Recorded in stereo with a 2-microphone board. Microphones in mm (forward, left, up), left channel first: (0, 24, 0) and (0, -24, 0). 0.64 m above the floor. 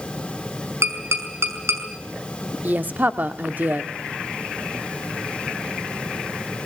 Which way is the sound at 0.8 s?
75° right (ahead or behind).